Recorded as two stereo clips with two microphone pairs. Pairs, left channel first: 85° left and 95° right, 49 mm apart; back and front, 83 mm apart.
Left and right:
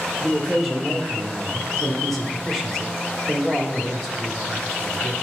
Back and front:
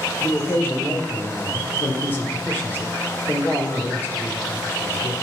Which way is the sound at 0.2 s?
175° left.